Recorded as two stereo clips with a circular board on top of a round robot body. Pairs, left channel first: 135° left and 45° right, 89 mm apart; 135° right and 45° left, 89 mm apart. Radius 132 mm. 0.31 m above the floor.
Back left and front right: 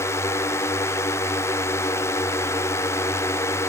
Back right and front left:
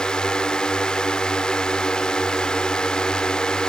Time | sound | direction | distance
0.0 | a drone | 150° left | ?